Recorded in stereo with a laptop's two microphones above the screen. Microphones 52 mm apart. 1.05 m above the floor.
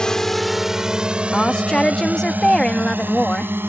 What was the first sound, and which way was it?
A drone, 15° left (ahead or behind).